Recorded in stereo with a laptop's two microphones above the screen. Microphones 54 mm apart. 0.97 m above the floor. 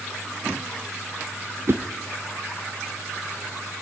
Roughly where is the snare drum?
I don't hear a snare drum.